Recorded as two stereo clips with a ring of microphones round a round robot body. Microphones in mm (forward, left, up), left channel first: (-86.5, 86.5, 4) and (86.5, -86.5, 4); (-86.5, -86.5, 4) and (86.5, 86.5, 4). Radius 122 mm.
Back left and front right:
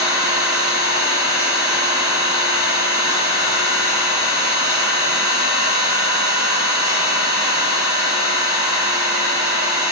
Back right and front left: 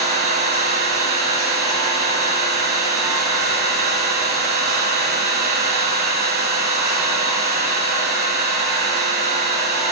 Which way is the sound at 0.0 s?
Straight ahead.